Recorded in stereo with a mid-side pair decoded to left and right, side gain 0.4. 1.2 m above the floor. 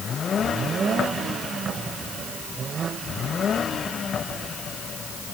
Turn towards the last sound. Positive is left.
No sound to turn to.